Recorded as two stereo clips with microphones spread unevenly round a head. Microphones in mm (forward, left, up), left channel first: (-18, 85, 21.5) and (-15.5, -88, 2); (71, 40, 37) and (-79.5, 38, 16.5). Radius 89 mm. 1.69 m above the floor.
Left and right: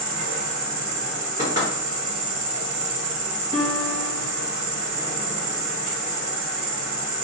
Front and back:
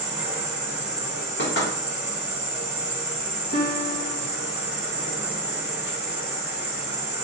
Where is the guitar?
30° left, 0.7 m.